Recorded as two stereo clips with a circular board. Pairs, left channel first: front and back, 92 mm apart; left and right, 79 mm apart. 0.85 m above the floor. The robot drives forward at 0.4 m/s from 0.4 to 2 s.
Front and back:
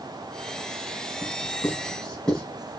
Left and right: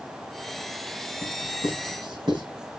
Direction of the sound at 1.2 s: 80° right.